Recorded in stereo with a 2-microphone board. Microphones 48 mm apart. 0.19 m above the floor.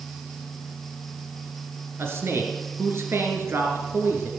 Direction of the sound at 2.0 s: 55° right (ahead or behind).